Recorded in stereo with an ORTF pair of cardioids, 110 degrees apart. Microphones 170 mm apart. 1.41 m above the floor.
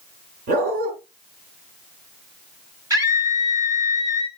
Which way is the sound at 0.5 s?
60° right.